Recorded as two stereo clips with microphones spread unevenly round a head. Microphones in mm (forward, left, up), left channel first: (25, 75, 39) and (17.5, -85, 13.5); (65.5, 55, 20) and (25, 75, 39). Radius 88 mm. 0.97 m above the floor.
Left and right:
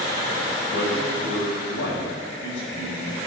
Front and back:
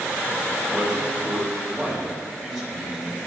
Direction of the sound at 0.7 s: 70° left.